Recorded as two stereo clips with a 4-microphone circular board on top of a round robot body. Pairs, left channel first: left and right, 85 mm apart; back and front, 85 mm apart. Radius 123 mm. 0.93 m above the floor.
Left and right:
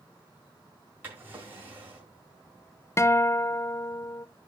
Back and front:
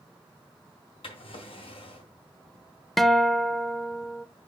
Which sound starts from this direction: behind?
A drawer, at 1.0 s.